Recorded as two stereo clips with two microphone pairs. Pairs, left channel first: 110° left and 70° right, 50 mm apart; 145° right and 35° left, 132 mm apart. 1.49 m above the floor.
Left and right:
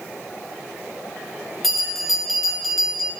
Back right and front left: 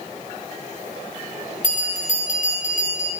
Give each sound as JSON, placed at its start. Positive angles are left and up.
{"t": 1.6, "sound": "a bell", "azimuth_deg": -160, "distance_m": 2.5}